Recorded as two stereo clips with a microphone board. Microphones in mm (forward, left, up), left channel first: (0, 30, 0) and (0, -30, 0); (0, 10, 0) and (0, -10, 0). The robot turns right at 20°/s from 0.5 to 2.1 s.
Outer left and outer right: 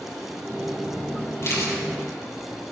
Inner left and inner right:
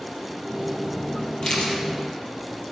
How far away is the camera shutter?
About 4 m.